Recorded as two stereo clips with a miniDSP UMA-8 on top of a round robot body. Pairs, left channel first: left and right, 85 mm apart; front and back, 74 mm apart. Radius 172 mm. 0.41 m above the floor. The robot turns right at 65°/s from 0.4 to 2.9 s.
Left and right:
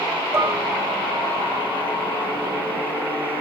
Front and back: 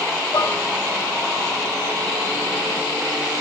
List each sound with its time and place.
0.3 s dishes clattering: 30° right, 3 m; by 0.6 s 15° right, 3 m